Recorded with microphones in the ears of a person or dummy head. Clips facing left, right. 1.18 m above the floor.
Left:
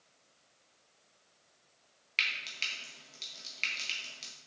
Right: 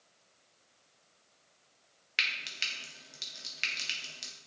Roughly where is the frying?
Centre.